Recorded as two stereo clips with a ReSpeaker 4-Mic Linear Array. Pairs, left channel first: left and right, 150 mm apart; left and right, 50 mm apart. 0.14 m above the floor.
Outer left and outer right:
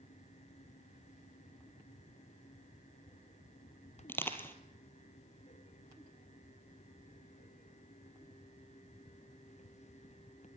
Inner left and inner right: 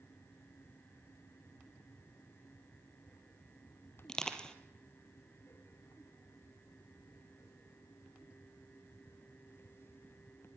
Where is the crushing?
15° left (ahead or behind), 3 m.